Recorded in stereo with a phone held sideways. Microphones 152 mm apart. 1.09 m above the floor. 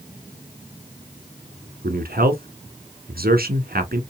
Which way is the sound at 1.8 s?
80° right.